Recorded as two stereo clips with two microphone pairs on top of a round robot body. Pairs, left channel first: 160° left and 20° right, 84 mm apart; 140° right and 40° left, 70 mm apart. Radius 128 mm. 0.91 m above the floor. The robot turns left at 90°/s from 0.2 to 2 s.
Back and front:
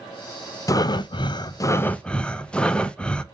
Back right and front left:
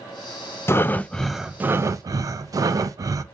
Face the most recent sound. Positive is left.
turn(degrees=85)